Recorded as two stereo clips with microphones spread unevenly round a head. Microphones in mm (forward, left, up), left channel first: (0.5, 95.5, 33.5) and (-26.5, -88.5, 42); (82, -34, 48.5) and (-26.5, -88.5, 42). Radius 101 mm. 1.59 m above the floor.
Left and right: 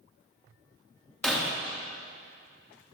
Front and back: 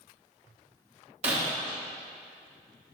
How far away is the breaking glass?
About 1.1 m.